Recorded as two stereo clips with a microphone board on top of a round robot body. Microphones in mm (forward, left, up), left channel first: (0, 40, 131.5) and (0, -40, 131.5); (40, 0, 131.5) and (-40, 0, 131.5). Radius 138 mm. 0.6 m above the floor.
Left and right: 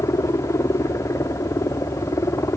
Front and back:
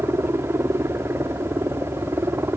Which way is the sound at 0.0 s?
130° left.